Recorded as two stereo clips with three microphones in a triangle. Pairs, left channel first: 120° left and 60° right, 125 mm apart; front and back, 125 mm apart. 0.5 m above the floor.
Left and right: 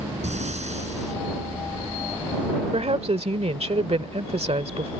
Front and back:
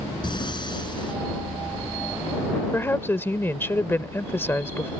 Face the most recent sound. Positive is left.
turn(degrees=-65)